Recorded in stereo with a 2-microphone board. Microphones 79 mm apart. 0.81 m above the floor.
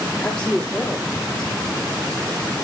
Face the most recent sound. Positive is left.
turn(degrees=-5)  # may be behind; listen again after turning